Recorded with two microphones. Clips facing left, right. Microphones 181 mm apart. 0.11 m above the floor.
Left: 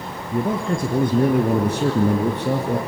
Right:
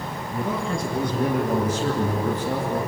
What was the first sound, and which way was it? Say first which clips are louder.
A man speaking: left 5 dB; 45° left (ahead or behind).